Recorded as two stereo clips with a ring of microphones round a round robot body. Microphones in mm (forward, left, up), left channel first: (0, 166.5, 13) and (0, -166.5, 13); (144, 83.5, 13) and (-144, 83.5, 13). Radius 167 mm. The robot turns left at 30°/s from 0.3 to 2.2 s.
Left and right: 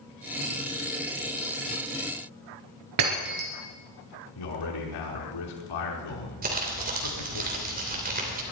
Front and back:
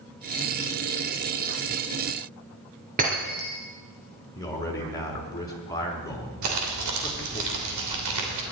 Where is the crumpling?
150° right, 3 m.